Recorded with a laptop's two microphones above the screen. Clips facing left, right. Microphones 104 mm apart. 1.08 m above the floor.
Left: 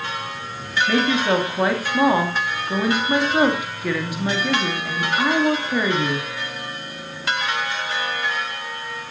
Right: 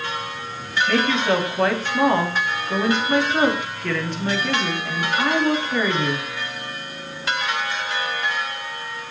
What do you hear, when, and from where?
0.9 s a woman speaking: 10° left (ahead or behind), 2.5 m